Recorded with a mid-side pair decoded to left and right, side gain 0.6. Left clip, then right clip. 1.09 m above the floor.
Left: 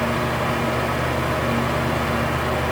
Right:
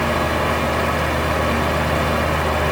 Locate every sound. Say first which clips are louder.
0.0 s a fan: right 3 dB; 30° right, 1.2 m